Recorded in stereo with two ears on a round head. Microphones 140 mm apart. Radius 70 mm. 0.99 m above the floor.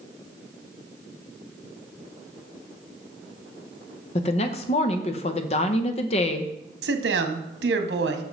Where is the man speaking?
80° right, 1.1 m.